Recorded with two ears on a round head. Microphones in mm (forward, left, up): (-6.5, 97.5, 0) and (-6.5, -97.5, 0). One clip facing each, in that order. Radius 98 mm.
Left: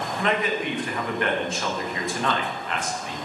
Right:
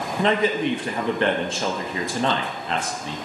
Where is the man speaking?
25° right (ahead or behind), 0.8 m.